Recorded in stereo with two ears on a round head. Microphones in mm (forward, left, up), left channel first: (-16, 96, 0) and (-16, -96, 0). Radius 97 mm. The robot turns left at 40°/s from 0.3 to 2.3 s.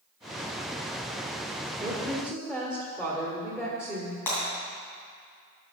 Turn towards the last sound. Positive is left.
turn(degrees=10)  # may be behind; listen again after turning